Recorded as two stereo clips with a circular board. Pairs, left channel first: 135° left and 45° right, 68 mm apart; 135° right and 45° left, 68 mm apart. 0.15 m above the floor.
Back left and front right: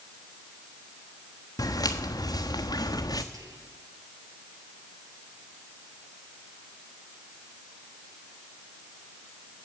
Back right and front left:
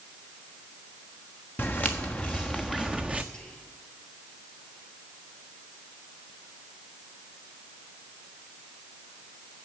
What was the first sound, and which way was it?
Footsteps, 165° left.